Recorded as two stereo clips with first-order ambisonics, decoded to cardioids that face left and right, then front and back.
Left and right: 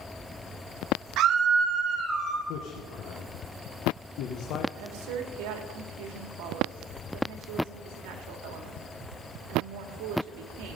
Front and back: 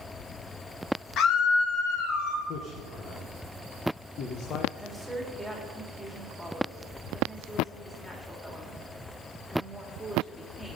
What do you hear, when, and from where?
1.2 s a scream: 50° right, 1.4 m; by 2.4 s 20° right, 3 m
2.5 s a man speaking: 50° left, 1.0 m
4.8 s a woman speaking: 85° right, 2.5 m